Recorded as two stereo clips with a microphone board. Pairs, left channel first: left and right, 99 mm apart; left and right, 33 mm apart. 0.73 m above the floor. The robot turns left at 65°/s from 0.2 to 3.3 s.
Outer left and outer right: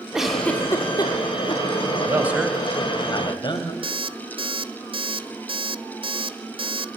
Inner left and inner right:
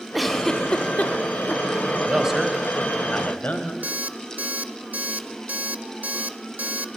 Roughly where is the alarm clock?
Right.